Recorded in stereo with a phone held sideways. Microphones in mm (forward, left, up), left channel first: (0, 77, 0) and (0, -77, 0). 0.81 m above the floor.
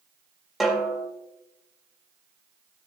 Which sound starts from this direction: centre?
A snare drum, at 0.6 s.